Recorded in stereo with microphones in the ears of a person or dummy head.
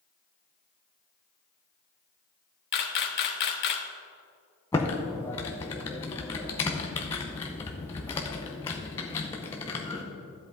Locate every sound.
2.7 s a camera shutter: 55° left (ahead or behind), 1.1 m
4.7 s typing on a keyboard: 15° left (ahead or behind), 0.8 m